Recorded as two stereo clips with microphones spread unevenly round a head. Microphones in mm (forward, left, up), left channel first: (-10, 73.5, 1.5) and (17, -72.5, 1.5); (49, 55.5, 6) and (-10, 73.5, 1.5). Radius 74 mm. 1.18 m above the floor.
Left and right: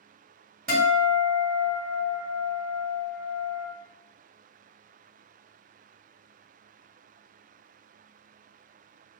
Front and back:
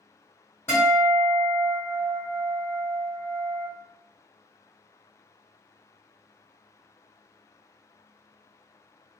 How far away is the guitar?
About 1.5 m.